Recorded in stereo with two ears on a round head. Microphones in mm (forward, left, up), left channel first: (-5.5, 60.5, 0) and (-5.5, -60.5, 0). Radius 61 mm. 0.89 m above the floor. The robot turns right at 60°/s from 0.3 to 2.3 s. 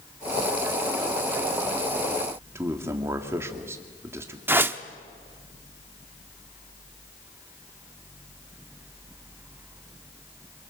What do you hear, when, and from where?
2.5 s a man speaking: 20° right (ahead or behind), 2.5 m
4.5 s a whoosh: 15° right (ahead or behind), 0.8 m